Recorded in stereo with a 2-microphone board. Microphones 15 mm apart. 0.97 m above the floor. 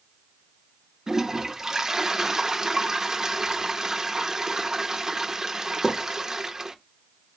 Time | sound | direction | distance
1.1 | a toilet flushing | 30° right (ahead or behind) | 0.6 m